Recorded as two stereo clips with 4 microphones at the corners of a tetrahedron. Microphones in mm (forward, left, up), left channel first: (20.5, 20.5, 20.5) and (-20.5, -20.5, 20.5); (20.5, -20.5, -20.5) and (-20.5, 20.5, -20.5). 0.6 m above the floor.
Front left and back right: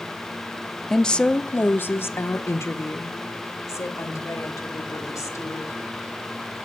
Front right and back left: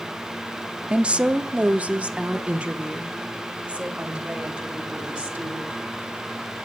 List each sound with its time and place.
0.9 s a woman speaking: 120° left, 1.0 m; by 5.8 s 65° left, 4 m